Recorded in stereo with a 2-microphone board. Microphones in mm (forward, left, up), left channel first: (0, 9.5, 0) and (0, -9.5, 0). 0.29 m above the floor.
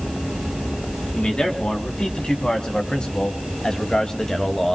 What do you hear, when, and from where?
1.1 s a man speaking: 60° left (ahead or behind), 2.5 m; by 4.8 s 30° left (ahead or behind), 1.4 m